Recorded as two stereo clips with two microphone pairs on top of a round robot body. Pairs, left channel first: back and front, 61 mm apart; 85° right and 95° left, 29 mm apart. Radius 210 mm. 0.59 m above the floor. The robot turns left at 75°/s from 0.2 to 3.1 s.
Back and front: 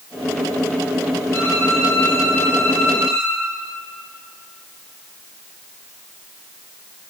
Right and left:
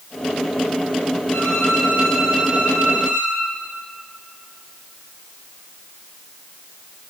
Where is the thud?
No thud in this recording.